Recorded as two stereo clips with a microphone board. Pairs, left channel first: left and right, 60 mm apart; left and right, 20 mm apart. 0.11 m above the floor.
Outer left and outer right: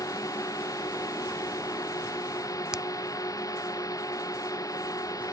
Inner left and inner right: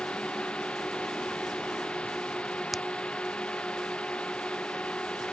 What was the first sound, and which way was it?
A drone, 70° left (ahead or behind).